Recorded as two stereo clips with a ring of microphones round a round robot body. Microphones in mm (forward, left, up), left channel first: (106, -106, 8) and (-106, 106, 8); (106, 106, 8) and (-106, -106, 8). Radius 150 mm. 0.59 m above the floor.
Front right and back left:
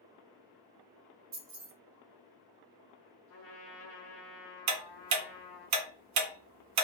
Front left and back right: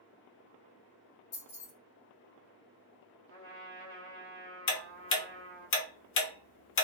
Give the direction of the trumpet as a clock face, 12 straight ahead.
12 o'clock.